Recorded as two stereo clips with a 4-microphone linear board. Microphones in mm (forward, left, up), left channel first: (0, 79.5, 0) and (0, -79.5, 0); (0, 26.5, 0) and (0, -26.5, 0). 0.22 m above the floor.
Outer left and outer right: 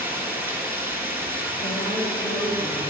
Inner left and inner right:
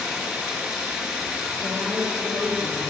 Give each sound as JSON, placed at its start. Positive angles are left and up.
{"t": 0.0, "sound": "running water", "side_deg": -15, "distance_m": 2.0}
{"t": 1.6, "sound": "a woman speaking", "side_deg": 70, "distance_m": 4.0}